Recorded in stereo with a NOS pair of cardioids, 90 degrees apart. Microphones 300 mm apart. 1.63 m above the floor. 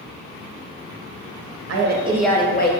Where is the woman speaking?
50° right, 0.6 m; by 2.7 s 35° left, 0.7 m.